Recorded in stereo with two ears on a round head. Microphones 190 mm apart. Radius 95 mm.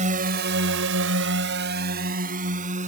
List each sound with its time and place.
0.0 s a drone: 35° right (ahead or behind)